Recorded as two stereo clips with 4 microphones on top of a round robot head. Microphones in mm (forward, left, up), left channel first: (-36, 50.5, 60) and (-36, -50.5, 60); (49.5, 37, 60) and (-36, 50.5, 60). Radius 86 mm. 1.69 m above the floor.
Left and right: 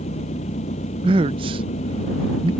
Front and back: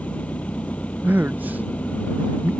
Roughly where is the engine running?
Ahead left.